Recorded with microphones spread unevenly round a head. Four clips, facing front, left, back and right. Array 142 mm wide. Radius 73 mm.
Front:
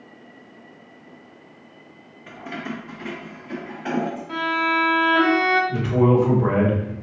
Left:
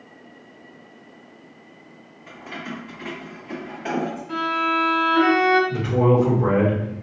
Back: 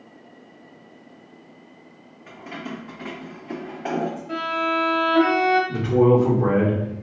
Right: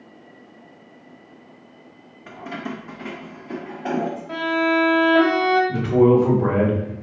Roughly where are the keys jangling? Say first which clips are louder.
Right 3 dB, front 2 dB; ahead right.